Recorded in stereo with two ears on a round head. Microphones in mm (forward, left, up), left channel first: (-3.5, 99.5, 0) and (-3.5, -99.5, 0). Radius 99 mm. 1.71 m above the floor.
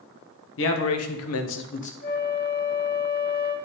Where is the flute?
45° left (ahead or behind), 2 m.